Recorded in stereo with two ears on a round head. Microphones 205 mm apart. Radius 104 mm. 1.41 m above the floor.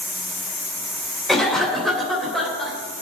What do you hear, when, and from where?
1.3 s a cough: centre (ahead or behind), 3 m